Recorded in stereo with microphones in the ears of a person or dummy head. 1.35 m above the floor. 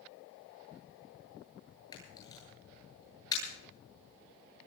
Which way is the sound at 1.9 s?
25° left (ahead or behind).